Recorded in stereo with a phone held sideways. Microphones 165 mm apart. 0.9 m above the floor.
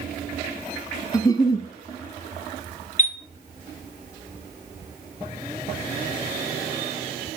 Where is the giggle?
20° left (ahead or behind), 0.5 m.